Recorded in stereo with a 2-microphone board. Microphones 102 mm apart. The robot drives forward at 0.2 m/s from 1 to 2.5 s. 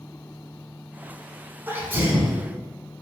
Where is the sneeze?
20° right (ahead or behind), 1.0 m.